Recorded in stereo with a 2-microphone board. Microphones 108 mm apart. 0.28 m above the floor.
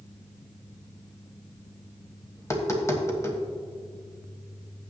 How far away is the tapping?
About 1.5 m.